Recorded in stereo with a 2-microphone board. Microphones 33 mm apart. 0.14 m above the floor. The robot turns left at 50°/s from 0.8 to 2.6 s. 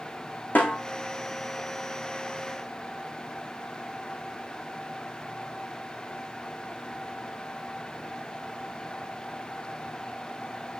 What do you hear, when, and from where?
0.6 s a snare drum: 75° left (ahead or behind), 3.5 m